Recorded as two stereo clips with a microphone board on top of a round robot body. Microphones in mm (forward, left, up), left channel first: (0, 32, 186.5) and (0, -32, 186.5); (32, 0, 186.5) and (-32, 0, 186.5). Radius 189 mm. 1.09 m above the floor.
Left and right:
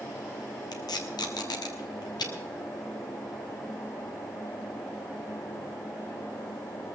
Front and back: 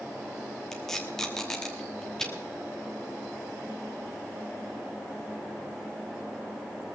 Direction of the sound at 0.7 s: 85° left.